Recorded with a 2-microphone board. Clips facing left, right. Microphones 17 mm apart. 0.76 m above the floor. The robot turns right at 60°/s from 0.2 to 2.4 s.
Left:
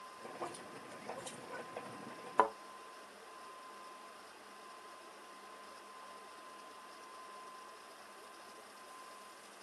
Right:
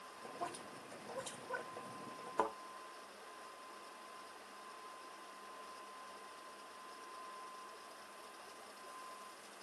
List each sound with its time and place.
0.4 s a woman speaking: 45° right (ahead or behind), 5 m; by 2.3 s 20° right (ahead or behind), 5 m
2.4 s a thud: 35° left (ahead or behind), 0.6 m